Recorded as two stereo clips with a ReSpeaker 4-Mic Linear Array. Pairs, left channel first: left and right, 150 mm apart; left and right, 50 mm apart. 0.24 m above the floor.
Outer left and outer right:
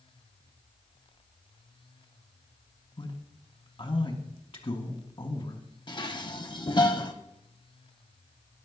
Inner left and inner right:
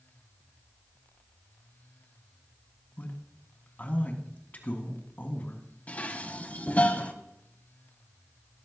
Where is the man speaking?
40° left (ahead or behind), 1.9 m.